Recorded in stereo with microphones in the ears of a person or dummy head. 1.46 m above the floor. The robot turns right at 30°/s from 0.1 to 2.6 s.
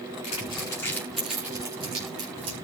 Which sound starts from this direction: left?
Crumpling, at 0.2 s.